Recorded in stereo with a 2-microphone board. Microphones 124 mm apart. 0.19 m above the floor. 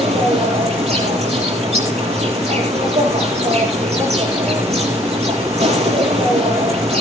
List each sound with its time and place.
0.0 s an insect: 60° right (ahead or behind), 6.5 m